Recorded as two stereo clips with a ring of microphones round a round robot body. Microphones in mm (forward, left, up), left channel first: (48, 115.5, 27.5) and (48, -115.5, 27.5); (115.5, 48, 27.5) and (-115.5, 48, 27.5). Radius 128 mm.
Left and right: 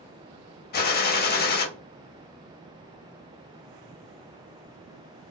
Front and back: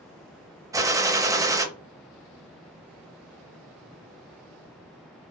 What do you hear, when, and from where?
0.7 s a gunshot: 110° left, 0.8 m